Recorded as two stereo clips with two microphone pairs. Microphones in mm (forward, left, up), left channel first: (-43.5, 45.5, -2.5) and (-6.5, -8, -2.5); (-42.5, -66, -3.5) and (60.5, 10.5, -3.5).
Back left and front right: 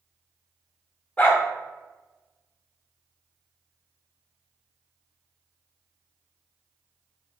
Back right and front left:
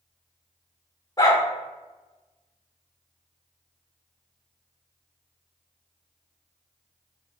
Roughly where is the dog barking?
Behind.